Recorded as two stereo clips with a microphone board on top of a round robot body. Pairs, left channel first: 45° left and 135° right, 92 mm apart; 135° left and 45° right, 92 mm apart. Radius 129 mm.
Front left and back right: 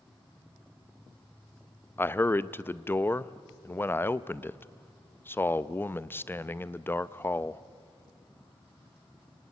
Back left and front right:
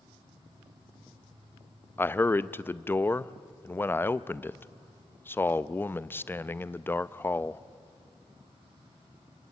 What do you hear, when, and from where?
0.0 s an insect: 35° right, 8.5 m
2.0 s a man speaking: 90° left, 0.8 m